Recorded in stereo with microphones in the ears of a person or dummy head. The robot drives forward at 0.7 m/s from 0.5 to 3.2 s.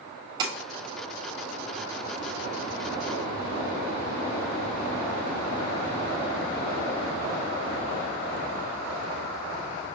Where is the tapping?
25° right (ahead or behind), 1.3 m.